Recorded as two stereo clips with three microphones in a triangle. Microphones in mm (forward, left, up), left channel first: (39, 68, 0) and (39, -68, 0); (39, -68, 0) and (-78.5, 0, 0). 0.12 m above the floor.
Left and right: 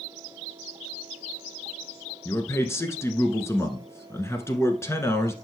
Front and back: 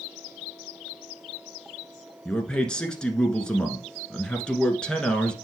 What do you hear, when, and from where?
2.2 s a man speaking: 45° left, 1.2 m